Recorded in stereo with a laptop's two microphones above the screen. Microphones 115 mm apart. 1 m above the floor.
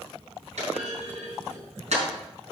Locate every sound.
0.6 s a clunk: 75° right (ahead or behind), 5 m